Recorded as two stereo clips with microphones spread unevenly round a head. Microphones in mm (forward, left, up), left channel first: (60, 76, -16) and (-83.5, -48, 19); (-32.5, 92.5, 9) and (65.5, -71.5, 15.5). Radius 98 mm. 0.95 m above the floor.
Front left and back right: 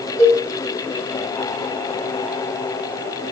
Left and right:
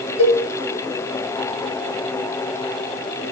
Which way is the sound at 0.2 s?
115° left.